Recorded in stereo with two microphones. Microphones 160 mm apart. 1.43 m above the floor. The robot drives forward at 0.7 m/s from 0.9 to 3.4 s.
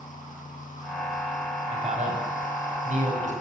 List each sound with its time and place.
1.7 s a man speaking: 45° right (ahead or behind), 8 m; by 3.3 s 50° right (ahead or behind), 7 m